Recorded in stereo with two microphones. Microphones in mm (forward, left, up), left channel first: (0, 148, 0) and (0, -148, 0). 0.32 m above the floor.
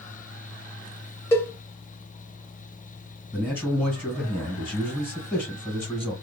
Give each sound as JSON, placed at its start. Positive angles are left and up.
{"t": 1.3, "sound": "a cowbell", "side_deg": 10, "distance_m": 0.6}
{"t": 3.3, "sound": "a man speaking", "side_deg": 5, "distance_m": 1.5}